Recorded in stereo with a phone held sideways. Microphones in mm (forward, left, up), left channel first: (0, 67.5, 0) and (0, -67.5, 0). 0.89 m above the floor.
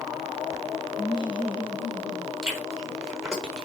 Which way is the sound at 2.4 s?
5° right (ahead or behind).